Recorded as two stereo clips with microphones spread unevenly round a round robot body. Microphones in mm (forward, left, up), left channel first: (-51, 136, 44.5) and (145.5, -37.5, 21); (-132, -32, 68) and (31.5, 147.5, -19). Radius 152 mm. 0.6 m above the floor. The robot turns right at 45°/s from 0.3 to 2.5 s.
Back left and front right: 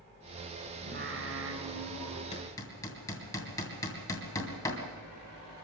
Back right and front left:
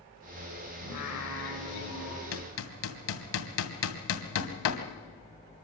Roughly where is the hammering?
Behind right.